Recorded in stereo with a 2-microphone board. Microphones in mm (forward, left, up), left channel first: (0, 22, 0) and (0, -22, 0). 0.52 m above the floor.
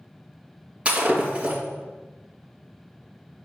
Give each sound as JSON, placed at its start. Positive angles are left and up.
{"t": 0.8, "sound": "breaking glass", "side_deg": -25, "distance_m": 3.5}